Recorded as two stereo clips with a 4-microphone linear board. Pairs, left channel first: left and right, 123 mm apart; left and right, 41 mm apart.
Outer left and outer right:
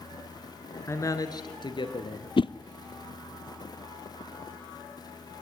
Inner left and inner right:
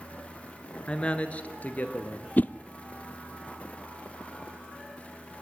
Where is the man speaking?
20° left (ahead or behind), 1.7 m; by 2.3 s 45° left (ahead or behind), 3 m.